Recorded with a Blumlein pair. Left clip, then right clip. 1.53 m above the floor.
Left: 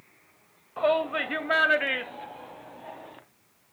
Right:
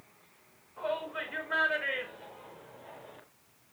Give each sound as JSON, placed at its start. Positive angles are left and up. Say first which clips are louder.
{"t": 0.8, "sound": "a shout", "louder": "left 10 dB", "azimuth_deg": 55, "distance_m": 2.0}